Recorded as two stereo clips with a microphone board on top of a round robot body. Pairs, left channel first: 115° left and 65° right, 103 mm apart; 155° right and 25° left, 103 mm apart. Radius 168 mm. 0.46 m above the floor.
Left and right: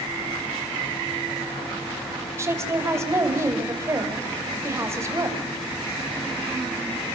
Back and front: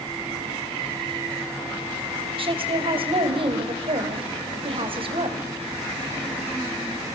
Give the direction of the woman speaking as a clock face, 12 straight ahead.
12 o'clock.